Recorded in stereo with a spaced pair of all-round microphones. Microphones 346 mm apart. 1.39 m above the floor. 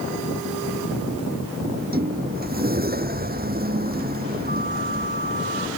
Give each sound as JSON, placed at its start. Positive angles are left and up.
{"t": 1.6, "sound": "a sliding door", "side_deg": -25}